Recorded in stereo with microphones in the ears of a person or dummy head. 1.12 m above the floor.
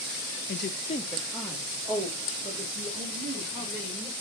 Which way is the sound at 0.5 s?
50° left (ahead or behind).